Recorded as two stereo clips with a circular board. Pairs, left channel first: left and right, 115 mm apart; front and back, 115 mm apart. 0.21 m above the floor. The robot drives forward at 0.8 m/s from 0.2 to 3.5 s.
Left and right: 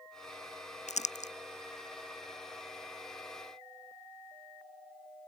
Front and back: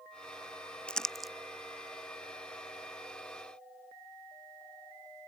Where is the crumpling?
85° left; by 1.3 s 95° left.